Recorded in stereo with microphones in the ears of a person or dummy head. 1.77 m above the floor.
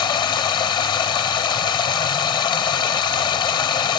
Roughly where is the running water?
Left.